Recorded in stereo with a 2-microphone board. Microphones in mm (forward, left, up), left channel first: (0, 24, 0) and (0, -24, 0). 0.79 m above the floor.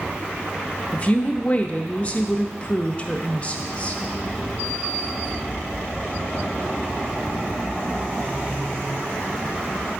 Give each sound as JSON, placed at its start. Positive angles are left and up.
{"t": 0.9, "sound": "a woman speaking", "side_deg": 30, "distance_m": 0.6}